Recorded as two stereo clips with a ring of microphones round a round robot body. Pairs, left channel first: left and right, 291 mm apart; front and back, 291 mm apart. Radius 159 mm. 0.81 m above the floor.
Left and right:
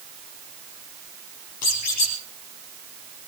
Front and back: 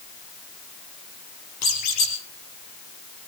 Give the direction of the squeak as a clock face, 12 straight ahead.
11 o'clock.